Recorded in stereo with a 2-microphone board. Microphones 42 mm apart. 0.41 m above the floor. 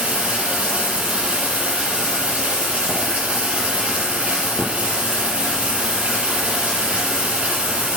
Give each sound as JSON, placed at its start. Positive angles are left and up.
{"t": 0.0, "sound": "running water", "side_deg": -25, "distance_m": 7.0}